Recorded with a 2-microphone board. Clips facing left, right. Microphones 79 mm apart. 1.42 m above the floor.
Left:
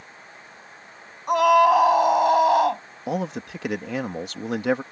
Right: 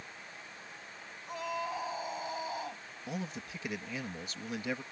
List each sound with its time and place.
1.3 s a scream: 85° left
3.1 s a man speaking: 85° left